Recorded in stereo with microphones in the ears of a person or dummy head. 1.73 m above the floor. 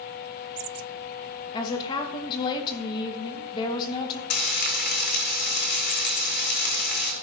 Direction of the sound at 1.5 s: 25° left (ahead or behind).